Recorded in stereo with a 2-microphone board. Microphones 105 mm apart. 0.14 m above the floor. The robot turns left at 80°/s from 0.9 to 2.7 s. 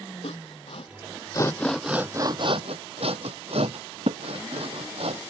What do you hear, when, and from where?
0.2 s sawing: 65° left (ahead or behind); by 5.2 s 70° right (ahead or behind)